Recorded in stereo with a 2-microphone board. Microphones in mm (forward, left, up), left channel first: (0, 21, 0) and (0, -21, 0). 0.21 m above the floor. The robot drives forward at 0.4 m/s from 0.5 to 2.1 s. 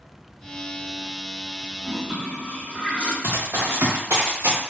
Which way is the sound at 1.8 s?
25° right (ahead or behind).